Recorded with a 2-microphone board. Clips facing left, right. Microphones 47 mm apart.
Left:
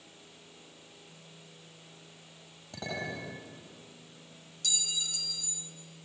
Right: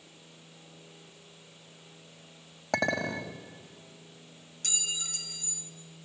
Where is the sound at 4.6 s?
50° right (ahead or behind), 1.1 m.